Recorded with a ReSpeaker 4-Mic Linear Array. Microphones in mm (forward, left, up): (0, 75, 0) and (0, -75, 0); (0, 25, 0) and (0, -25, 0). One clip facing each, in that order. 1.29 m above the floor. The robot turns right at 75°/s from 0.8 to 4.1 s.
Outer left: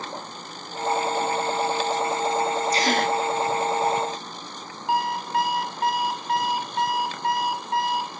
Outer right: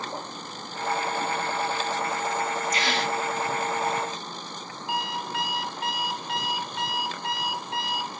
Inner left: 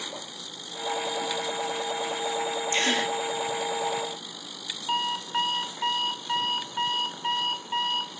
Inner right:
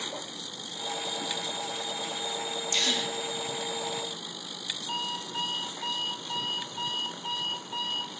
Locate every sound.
2.7 s a gasp: 35° left, 1.8 m; by 3.1 s 65° left, 1.8 m
4.9 s an alarm clock: 50° left (ahead or behind), 3 m